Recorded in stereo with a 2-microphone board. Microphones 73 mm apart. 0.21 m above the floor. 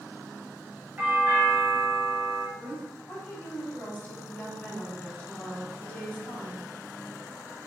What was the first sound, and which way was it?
A doorbell, 25° right (ahead or behind).